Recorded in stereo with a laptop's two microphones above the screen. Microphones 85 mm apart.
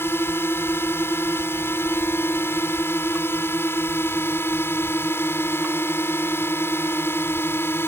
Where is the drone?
30° left (ahead or behind).